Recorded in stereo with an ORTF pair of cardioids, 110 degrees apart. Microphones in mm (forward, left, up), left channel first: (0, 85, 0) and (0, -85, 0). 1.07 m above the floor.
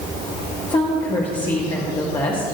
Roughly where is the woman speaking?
Ahead left.